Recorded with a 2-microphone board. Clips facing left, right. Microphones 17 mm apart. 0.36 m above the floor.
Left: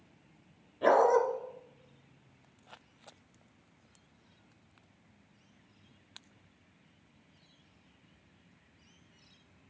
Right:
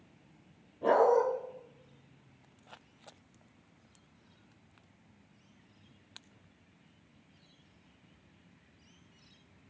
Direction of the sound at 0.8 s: 85° left.